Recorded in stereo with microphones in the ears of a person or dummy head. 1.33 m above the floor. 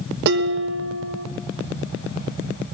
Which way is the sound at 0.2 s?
55° right (ahead or behind).